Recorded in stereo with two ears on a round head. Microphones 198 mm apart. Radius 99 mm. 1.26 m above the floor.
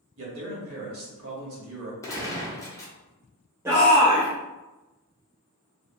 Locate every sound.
0.2 s a man speaking: 65° right (ahead or behind), 1.6 m
2.0 s a gunshot: 15° left (ahead or behind), 0.8 m
3.6 s a shout: 10° right (ahead or behind), 0.8 m